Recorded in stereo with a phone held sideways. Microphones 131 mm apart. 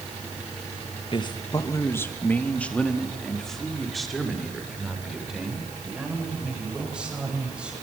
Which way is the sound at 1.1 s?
40° left (ahead or behind).